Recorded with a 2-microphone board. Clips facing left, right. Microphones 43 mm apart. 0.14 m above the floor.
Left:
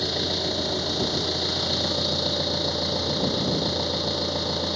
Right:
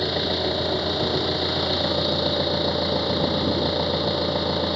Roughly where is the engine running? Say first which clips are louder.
Right 3 dB; centre.